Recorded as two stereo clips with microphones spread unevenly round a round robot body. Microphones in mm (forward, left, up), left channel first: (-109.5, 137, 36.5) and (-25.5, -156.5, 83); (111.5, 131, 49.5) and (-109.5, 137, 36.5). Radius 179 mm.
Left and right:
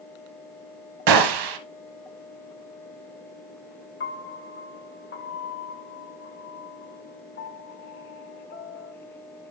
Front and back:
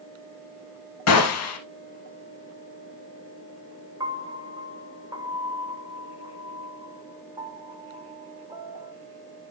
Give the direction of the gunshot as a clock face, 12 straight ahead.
1 o'clock.